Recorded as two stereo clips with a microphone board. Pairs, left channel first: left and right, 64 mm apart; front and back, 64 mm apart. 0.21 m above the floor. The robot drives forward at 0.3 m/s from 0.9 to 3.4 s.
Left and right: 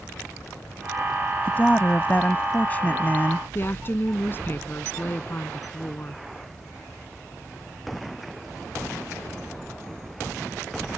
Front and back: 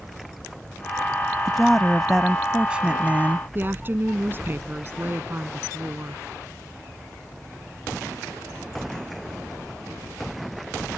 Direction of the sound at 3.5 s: 130° left.